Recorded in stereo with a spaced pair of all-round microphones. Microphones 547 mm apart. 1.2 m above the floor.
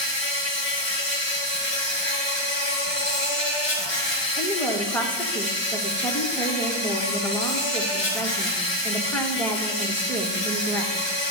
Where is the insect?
50° left (ahead or behind), 2.5 m.